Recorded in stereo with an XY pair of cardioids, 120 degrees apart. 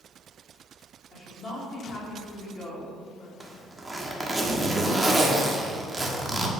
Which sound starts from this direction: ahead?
A zipper, at 3.4 s.